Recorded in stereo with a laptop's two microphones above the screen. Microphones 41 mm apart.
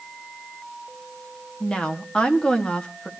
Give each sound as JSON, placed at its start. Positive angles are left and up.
{"t": 1.6, "sound": "a woman speaking", "side_deg": 25, "distance_m": 1.3}